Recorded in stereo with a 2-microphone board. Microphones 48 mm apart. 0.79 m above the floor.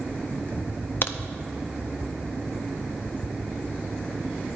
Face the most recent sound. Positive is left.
turn(degrees=50)  # may be behind; listen again after turning